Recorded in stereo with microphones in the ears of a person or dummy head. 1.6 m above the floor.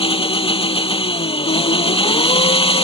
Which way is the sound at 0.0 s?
30° left (ahead or behind).